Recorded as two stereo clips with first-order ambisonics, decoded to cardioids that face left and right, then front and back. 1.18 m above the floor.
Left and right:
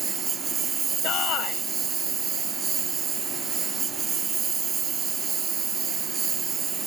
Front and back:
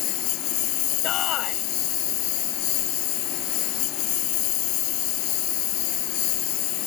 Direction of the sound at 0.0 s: 25° right.